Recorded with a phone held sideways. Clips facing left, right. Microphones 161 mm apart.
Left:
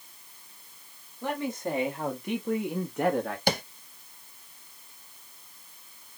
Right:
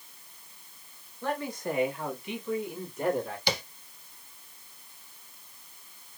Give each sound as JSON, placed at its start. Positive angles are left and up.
{"t": 1.2, "sound": "a man speaking", "side_deg": 15, "distance_m": 2.0}
{"t": 3.5, "sound": "tapping", "side_deg": 50, "distance_m": 0.6}